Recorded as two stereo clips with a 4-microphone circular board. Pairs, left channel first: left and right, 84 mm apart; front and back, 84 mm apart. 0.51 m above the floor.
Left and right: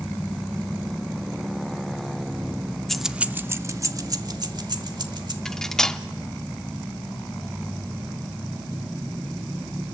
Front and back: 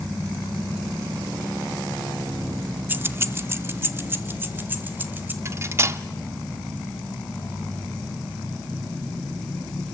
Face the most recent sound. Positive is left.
turn(degrees=170)